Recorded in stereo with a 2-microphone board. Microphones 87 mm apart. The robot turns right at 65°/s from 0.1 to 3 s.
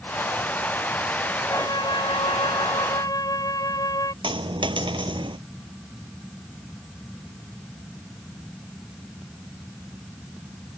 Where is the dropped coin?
75° right (ahead or behind).